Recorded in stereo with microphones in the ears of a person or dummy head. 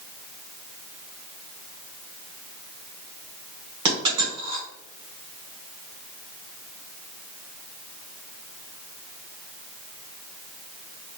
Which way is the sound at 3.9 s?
30° right (ahead or behind).